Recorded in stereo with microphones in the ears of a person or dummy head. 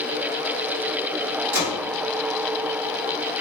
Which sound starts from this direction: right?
A gunshot, at 1.5 s.